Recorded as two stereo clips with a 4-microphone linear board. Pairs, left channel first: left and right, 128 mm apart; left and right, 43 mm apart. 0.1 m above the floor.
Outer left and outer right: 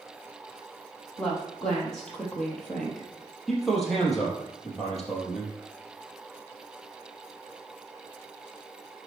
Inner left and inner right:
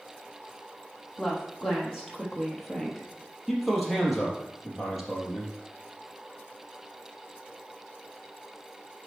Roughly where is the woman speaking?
Centre.